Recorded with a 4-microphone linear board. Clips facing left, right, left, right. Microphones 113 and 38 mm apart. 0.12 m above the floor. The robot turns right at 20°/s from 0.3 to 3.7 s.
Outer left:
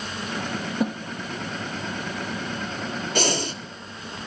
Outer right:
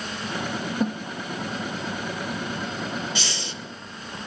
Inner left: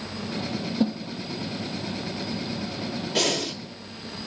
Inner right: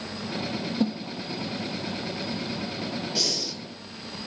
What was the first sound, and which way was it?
A snare drum, 5° left (ahead or behind).